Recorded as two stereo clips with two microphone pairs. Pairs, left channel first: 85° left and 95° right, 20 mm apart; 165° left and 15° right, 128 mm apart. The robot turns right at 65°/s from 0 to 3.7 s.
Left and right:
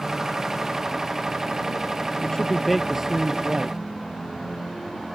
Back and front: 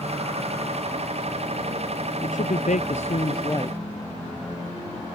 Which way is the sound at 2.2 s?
135° left.